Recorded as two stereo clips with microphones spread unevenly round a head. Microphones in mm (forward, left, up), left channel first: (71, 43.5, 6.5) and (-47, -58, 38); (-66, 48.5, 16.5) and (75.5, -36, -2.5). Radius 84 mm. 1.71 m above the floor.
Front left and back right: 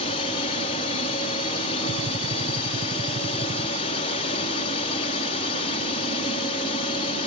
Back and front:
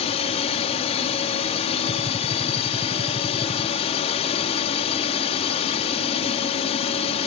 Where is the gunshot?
90° right.